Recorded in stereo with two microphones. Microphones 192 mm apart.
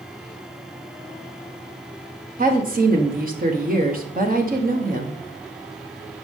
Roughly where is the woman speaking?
Right.